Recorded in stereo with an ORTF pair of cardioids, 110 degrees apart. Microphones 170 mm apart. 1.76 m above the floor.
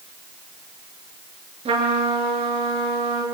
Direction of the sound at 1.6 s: 35° right.